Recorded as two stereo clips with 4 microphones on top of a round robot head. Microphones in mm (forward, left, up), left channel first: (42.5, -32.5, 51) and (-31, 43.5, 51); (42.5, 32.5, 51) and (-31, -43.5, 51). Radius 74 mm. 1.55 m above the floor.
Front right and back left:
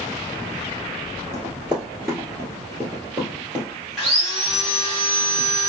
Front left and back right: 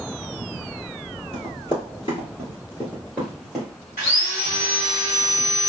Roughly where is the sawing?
Ahead left.